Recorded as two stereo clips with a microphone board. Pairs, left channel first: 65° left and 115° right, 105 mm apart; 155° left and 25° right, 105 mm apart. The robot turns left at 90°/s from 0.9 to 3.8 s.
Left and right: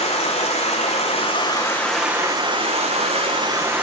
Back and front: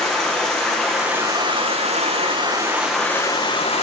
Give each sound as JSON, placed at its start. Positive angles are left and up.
{"t": 0.0, "sound": "running water", "azimuth_deg": 75, "distance_m": 1.4}